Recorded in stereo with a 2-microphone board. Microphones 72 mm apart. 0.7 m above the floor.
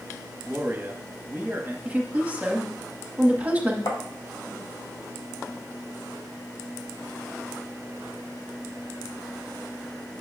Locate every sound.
0.4 s a man speaking: 25° right (ahead or behind), 0.9 m
1.9 s a woman speaking: 20° right (ahead or behind), 0.9 m
3.9 s tapping: 65° left (ahead or behind), 0.9 m